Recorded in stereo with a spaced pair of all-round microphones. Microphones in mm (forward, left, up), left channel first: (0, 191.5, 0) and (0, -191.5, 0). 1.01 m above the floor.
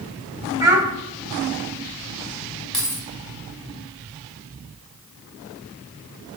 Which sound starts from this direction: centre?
A child speaking, at 0.6 s.